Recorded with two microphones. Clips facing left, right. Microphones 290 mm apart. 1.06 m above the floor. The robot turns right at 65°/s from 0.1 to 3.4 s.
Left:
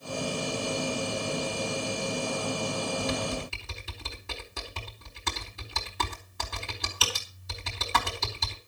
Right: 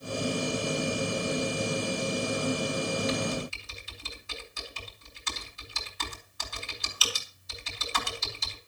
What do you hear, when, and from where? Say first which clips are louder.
3.0 s typing on a keyboard: right 1 dB; 55° left (ahead or behind), 4 m; by 8.6 s 75° left (ahead or behind), 4 m